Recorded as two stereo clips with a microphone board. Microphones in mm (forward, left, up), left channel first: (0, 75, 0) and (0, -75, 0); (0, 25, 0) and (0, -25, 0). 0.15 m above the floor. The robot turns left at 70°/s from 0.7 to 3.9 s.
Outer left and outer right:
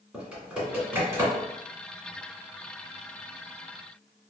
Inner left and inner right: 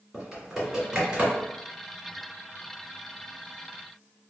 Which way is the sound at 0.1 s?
10° right (ahead or behind).